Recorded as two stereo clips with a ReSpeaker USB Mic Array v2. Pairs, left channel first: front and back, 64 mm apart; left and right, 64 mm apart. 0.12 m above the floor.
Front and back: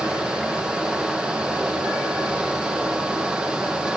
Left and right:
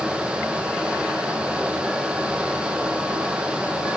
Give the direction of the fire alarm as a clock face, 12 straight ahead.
I don't hear a fire alarm.